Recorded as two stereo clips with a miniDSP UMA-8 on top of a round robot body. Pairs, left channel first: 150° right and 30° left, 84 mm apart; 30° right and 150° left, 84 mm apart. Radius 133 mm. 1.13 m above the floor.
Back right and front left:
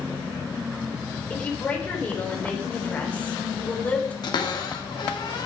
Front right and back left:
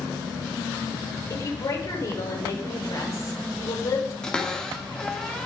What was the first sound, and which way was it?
A woman speaking, 80° right.